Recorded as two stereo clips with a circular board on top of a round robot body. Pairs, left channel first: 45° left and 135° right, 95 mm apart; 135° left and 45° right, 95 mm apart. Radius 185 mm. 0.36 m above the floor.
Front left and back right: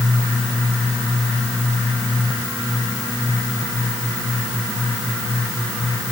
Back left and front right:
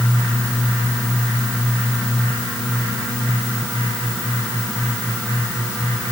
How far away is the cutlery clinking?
I don't hear cutlery clinking.